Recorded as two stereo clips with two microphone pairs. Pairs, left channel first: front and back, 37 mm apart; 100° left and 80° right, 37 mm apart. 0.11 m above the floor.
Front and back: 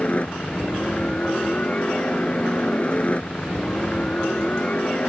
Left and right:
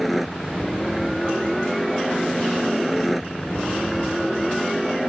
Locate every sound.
0.0 s a helicopter: 10° left